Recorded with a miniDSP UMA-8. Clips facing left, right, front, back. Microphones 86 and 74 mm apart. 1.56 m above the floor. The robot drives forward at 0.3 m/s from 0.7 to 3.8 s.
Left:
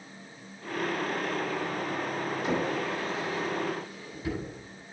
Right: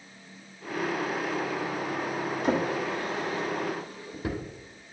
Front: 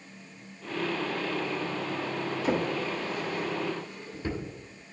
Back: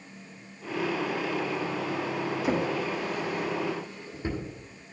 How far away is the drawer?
About 1.8 m.